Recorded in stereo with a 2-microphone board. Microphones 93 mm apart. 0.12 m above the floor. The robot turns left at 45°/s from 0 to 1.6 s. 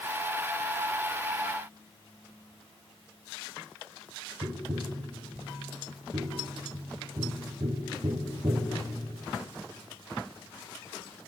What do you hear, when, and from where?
4.4 s tapping: 55° right (ahead or behind), 0.7 m